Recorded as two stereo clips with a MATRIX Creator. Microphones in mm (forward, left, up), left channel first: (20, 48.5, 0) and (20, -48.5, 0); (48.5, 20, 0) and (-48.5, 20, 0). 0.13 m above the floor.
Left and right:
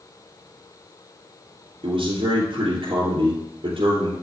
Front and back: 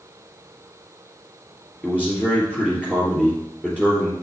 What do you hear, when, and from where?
1.8 s a man speaking: 75° right, 3 m